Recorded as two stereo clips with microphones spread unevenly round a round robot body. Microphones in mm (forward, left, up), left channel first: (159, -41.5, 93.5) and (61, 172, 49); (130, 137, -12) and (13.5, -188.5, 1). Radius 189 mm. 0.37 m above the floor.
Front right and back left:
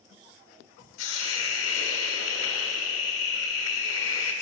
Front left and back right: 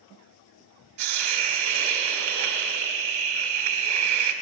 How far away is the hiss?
About 1.3 m.